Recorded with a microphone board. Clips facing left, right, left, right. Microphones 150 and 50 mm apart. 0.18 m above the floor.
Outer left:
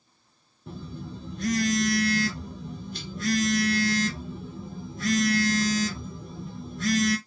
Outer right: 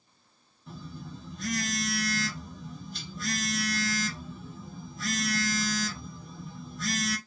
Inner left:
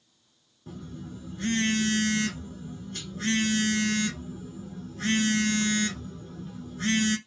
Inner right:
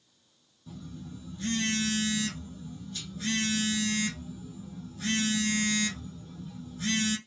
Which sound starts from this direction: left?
A phone buzzing, at 0.7 s.